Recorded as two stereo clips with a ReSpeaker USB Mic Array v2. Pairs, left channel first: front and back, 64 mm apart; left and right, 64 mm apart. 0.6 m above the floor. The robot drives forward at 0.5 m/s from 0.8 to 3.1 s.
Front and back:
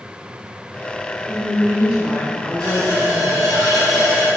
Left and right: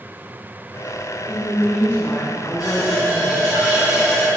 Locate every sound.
1.3 s a woman speaking: 75° left, 0.6 m; by 3.4 s 155° left, 1.0 m
2.6 s a running tap: 75° left, 1.7 m; by 4.3 s 85° left, 1.7 m